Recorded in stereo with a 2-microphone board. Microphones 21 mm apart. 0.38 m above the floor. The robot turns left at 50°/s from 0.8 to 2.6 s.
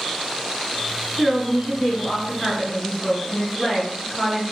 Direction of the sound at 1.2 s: 145° right.